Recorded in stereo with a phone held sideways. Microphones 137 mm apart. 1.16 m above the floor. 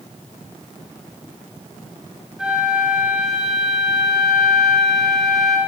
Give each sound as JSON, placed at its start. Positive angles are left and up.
{"t": 2.4, "sound": "a flute", "side_deg": -5, "distance_m": 5.5}